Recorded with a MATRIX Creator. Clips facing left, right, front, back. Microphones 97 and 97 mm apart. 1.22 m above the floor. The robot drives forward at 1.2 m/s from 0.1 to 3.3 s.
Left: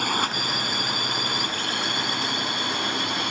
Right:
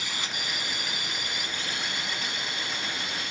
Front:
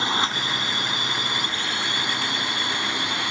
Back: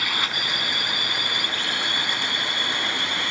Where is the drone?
60° left; by 3.3 s 70° left.